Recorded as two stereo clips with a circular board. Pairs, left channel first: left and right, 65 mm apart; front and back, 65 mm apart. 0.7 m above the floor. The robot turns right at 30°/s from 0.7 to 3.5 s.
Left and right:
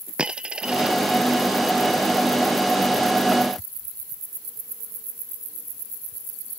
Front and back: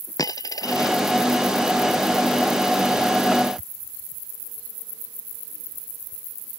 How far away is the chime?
I don't hear a chime.